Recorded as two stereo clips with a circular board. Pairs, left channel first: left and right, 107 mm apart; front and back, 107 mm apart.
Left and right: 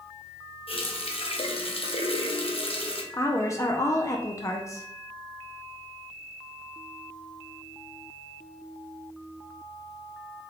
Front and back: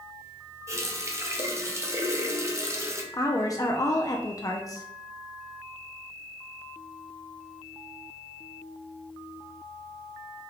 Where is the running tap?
120° left, 0.8 m.